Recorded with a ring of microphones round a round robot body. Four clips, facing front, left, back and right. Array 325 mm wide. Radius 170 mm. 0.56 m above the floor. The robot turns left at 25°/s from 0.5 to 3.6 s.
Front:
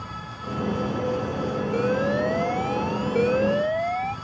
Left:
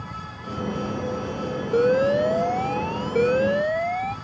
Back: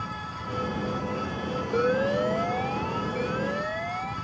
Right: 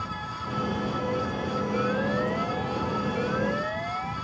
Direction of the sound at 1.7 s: 95° left.